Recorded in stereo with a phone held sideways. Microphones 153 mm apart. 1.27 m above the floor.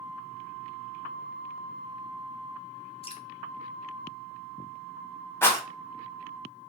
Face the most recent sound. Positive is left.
turn(degrees=15)  # may be behind; listen again after turning